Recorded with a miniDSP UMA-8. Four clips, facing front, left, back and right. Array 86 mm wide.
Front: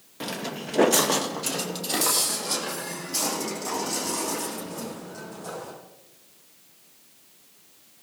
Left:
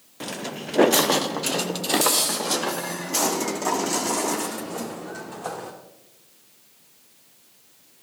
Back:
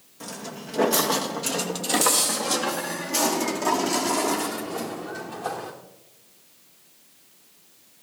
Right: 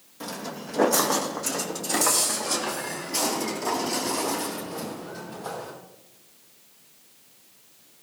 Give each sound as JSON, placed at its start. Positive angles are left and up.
{"t": 0.2, "sound": "footsteps", "azimuth_deg": 40, "distance_m": 1.3}